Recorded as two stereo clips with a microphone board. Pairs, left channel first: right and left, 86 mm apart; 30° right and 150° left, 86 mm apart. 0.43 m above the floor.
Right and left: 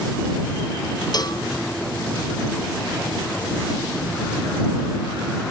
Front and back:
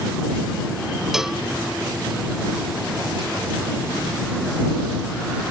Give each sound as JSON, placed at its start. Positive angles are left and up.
{"t": 1.1, "sound": "a cowbell", "azimuth_deg": -125}